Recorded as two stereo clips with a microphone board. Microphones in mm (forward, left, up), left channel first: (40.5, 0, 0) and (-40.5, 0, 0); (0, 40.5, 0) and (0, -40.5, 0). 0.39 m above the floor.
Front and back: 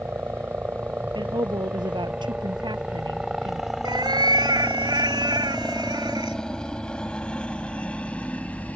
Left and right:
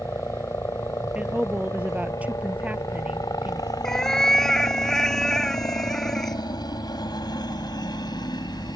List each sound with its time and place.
0.0 s a helicopter: 130° left; by 8.8 s 70° left
1.1 s a woman speaking: 160° right
3.8 s a cat meowing: 175° left